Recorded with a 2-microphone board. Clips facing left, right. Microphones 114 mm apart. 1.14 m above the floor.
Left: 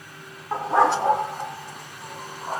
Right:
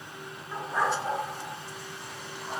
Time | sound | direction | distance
0.5 | a dog barking | 70° left (ahead or behind) | 2.5 m